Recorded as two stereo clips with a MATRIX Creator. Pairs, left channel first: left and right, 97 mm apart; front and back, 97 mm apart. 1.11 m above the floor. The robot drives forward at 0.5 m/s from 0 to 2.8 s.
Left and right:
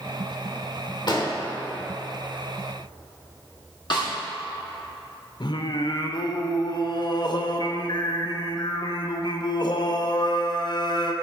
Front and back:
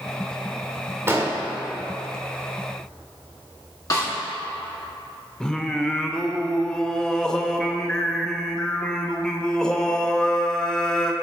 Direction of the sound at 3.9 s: 55° left.